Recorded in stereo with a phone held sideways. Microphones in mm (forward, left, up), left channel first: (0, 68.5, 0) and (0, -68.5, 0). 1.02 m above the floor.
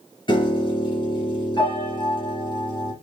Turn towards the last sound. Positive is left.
turn(degrees=35)  # may be behind; listen again after turning